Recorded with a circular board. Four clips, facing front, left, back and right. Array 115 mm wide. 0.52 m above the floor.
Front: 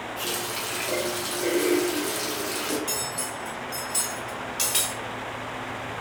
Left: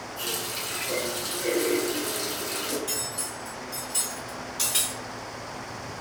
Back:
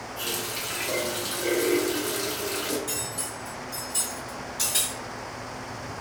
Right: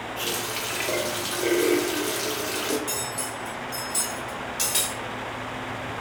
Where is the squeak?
No squeak in this recording.